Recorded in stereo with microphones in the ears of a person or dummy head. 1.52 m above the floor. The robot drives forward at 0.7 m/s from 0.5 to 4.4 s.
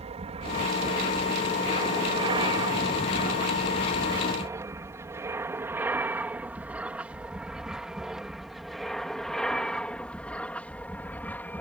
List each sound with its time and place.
0.0 s an aircraft: 30° right (ahead or behind); by 11.6 s 10° left (ahead or behind)